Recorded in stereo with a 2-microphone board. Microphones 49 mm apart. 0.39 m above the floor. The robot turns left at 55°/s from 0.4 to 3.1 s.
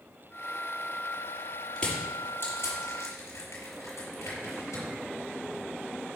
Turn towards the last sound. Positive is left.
turn(degrees=85)